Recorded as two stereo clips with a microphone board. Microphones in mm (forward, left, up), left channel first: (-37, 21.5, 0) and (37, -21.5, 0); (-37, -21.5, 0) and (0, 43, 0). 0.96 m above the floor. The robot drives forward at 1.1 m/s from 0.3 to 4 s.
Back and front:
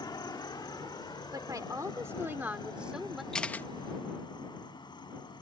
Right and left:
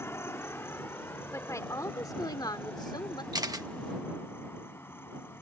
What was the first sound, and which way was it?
An insect, 175° right.